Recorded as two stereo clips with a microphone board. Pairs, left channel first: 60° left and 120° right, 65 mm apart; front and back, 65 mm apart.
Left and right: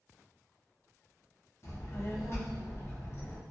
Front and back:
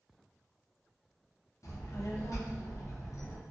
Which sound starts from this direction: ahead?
A child speaking, at 1.6 s.